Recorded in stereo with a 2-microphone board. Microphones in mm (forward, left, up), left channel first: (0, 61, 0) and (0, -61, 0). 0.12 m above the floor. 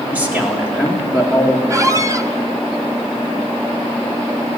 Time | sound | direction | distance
0.1 | a man speaking | 10° right (ahead or behind) | 1.9 m
1.7 | a squeak | 25° right (ahead or behind) | 0.5 m